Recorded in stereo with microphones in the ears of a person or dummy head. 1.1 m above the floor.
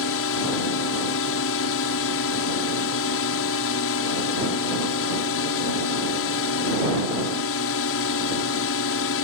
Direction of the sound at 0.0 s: 65° left (ahead or behind).